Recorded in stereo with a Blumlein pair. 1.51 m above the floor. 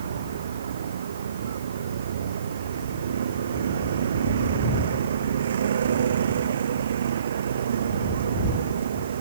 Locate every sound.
0.0 s a vehicle: 65° right